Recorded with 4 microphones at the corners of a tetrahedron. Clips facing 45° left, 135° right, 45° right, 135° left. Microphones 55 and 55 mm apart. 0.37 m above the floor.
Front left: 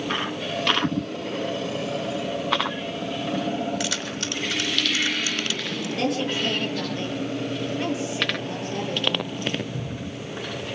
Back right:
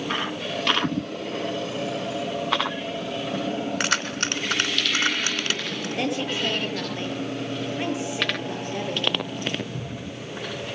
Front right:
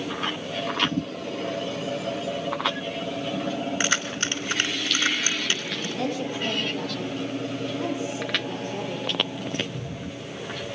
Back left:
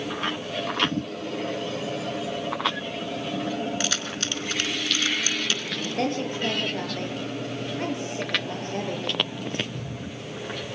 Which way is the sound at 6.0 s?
160° left.